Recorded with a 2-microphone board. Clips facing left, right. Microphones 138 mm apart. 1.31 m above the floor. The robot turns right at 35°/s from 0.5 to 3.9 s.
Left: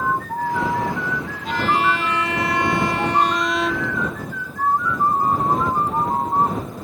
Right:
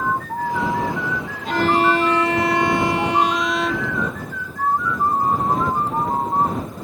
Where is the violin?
75° right; by 4.0 s 10° left.